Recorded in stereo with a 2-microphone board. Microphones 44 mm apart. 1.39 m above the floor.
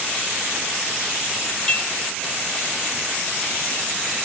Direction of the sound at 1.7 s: 20° left (ahead or behind).